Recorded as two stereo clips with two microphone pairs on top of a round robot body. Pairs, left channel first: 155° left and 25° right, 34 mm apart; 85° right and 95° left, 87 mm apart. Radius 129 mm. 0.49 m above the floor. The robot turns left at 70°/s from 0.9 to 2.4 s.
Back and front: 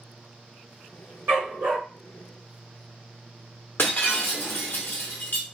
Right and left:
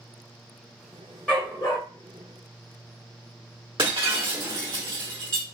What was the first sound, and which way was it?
A dog barking, 10° right.